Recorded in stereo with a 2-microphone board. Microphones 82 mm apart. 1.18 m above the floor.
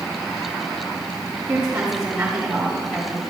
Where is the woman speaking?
20° right (ahead or behind), 3.5 m; by 3.2 s 10° left (ahead or behind), 3 m.